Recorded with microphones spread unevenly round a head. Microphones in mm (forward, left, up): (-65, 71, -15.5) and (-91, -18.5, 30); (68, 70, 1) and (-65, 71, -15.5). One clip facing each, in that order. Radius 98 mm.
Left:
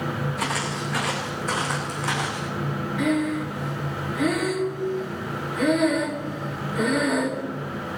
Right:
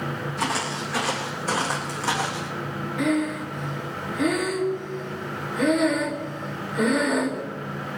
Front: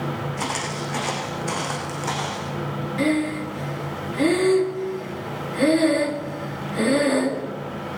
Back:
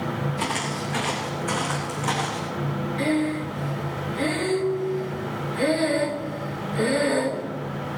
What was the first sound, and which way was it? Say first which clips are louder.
Footsteps: even, even; 50° right.